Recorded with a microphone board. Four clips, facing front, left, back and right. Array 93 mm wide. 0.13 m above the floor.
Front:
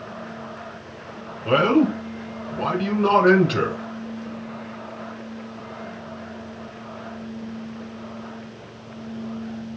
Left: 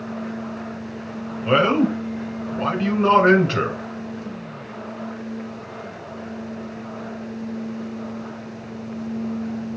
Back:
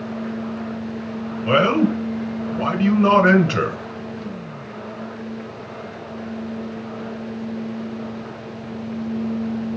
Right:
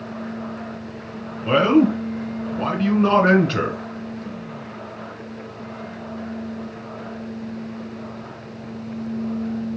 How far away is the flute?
No flute in this recording.